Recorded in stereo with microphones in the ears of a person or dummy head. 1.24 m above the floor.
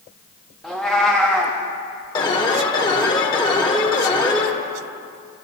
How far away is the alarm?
About 1.6 m.